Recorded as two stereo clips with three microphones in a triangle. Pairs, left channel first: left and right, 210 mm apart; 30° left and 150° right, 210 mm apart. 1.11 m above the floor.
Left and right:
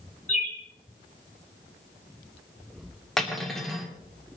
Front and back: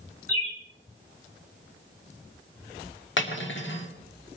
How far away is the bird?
About 3 m.